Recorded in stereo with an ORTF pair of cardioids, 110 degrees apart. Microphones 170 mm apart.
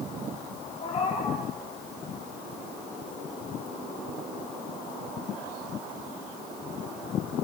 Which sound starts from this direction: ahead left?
A cat meowing, at 0.8 s.